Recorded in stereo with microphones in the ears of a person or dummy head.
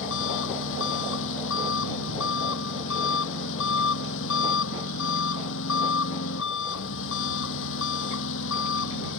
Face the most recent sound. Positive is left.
turn(degrees=75)  # may be behind; listen again after turning